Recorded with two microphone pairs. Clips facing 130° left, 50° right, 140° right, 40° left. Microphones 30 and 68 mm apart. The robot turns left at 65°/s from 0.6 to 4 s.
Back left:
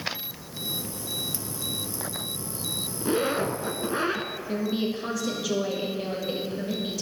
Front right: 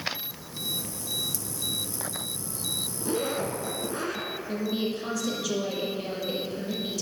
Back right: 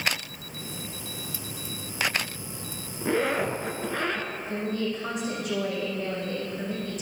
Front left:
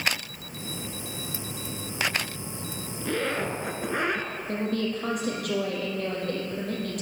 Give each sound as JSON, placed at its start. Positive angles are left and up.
{"t": 3.0, "sound": "a zipper", "azimuth_deg": 165, "distance_m": 0.8}
{"t": 4.5, "sound": "a woman speaking", "azimuth_deg": 50, "distance_m": 3.5}